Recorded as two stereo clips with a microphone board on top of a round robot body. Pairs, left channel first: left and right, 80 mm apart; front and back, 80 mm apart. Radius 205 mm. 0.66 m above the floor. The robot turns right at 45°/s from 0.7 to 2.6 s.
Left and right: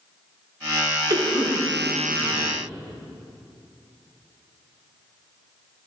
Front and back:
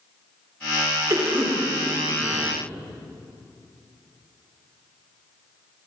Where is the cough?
130° right, 3 m; by 2.5 s 65° right, 3 m.